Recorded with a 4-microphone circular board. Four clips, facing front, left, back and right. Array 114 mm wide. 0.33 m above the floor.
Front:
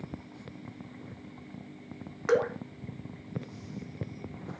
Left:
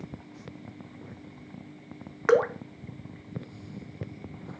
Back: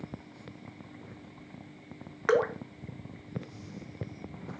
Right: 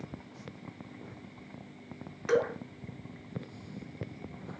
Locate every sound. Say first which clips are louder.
2.3 s dripping: left 6 dB, even; 110° left, 0.6 m